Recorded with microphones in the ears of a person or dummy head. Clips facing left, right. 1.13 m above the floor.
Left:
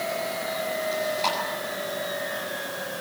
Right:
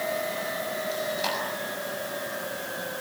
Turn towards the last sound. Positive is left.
turn(degrees=-5)  # may be behind; listen again after turning